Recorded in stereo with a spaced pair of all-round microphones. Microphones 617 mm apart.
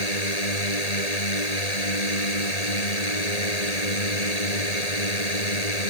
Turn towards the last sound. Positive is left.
turn(degrees=75)  # may be behind; listen again after turning